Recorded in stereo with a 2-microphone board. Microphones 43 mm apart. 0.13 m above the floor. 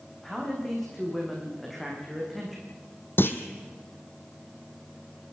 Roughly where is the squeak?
No squeak in this recording.